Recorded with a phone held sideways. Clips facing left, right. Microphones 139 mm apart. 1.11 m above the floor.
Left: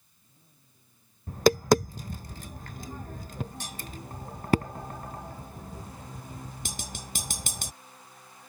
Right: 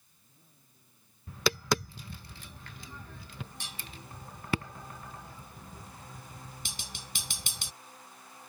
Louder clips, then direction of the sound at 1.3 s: Left 10 dB; 45° left (ahead or behind).